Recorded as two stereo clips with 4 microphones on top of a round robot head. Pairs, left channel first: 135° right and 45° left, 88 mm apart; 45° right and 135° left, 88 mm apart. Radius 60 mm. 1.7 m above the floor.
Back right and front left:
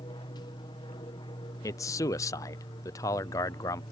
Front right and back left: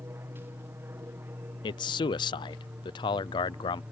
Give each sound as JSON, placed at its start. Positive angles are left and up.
{"t": 0.0, "sound": "an aircraft", "azimuth_deg": -165}
{"t": 1.6, "sound": "a man speaking", "azimuth_deg": -80}